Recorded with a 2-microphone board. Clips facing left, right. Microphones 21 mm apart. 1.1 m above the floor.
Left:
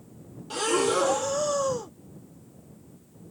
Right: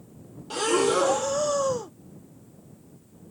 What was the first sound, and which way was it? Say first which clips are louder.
Breathing: right 2 dB; 5° right (ahead or behind).